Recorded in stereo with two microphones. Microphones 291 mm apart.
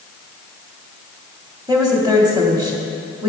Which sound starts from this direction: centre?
A woman speaking, at 1.7 s.